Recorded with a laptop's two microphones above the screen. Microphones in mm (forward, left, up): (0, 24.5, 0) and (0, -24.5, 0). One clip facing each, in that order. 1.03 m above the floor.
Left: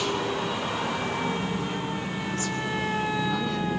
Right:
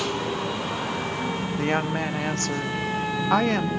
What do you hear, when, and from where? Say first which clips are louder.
1.6 s a woman speaking: right 6 dB; 70° right (ahead or behind), 1.6 m